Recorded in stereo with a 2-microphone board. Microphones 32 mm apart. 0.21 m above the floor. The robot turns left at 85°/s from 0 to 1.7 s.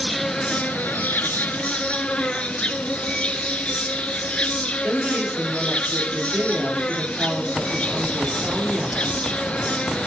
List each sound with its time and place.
0.0 s an insect: 175° right, 0.8 m; by 10.1 s 40° left, 0.8 m
4.8 s a woman speaking: 50° right (ahead or behind), 5 m